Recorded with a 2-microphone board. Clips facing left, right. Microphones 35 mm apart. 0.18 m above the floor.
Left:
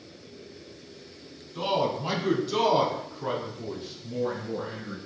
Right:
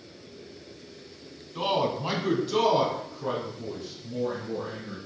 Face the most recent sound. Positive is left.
turn(degrees=50)  # may be behind; listen again after turning